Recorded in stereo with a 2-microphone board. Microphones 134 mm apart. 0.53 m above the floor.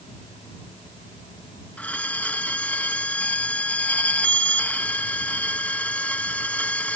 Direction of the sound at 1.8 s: 10° left (ahead or behind).